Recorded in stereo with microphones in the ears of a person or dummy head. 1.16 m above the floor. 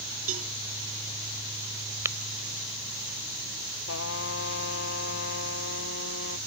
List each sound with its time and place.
0.3 s a cowbell: 45° right (ahead or behind)
2.0 s tapping: 15° right (ahead or behind)
3.9 s a trumpet: 65° left (ahead or behind)